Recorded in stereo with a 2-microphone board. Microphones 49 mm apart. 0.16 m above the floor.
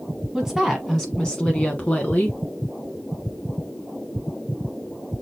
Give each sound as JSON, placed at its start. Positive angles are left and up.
{"t": 0.3, "sound": "a woman speaking", "side_deg": -5, "distance_m": 1.1}